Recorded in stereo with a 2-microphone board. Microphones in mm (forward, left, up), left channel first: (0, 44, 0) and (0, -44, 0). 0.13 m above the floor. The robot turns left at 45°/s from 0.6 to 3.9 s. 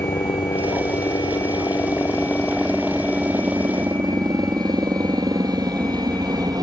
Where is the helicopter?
95° left; by 6.6 s 55° right.